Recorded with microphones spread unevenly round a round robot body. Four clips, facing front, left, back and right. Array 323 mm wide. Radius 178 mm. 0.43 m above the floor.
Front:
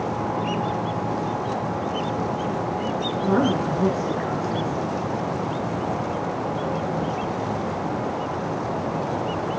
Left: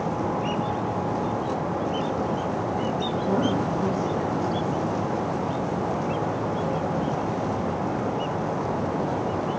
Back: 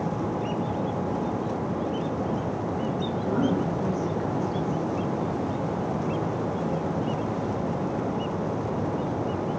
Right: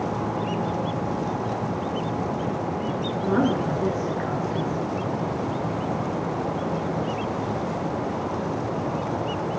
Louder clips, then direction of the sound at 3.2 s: Right 3 dB, front 5 dB; 15° right.